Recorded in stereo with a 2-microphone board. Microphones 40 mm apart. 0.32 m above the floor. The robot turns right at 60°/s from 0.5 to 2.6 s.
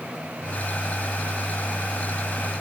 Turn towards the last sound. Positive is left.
No sound to turn to.